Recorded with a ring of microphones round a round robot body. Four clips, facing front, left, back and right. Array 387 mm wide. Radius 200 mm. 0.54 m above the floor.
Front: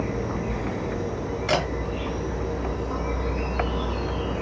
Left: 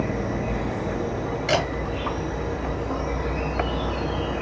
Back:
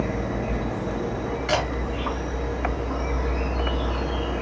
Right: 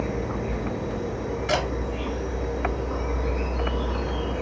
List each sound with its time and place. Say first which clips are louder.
0.0 s an insect: left 2 dB, back 1 dB; 105° left, 2 m
1.5 s a camera shutter: left 2 dB, even; 50° left, 1.8 m